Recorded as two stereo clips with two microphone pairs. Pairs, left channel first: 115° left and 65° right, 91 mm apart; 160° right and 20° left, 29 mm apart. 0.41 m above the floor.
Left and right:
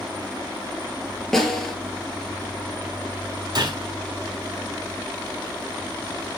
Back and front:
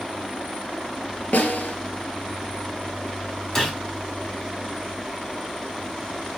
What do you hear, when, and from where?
1.3 s a snare drum: 160° right, 2 m
3.5 s a gunshot: 90° right, 3.5 m